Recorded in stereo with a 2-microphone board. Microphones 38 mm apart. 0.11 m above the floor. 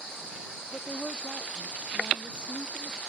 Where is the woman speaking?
30° left (ahead or behind).